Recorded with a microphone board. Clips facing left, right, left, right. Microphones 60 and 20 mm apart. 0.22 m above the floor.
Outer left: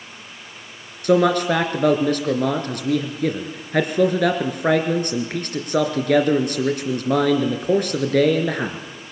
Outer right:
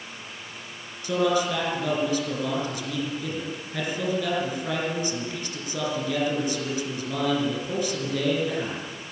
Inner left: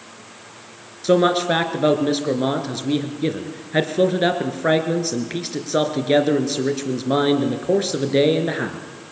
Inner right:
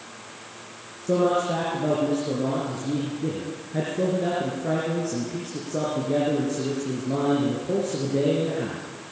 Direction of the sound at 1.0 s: 65° left (ahead or behind).